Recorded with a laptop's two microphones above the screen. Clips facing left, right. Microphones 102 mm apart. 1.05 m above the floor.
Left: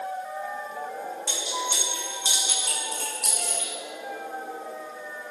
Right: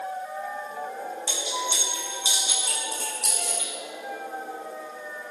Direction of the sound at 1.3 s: 50° left (ahead or behind).